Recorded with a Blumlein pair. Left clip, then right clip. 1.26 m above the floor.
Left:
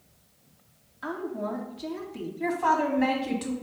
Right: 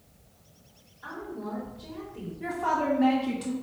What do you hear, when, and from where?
1.0 s a woman speaking: 55° left, 2 m
2.4 s a woman speaking: 25° left, 1.7 m